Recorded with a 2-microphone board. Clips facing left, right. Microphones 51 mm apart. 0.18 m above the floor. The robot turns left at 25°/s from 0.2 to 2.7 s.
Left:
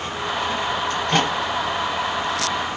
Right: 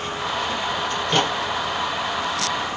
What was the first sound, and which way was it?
A microwave, 55° left (ahead or behind).